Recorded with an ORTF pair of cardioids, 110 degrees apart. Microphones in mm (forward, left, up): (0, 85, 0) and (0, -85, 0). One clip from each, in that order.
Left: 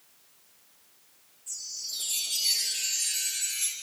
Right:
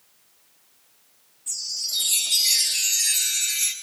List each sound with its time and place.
1.5 s a chime: 50° right, 2.0 m